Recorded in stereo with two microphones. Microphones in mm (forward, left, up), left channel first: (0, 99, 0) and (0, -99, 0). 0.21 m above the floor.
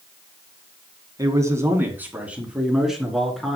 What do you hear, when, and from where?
1.2 s a man speaking: 20° right (ahead or behind), 2.5 m; by 3.6 s centre (ahead or behind), 3.5 m